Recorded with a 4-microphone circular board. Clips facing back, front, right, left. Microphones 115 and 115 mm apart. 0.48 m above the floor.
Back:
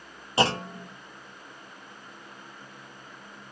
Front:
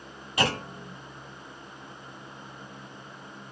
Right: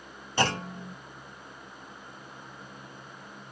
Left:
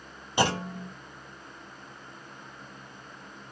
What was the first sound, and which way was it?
A clunk, 155° left.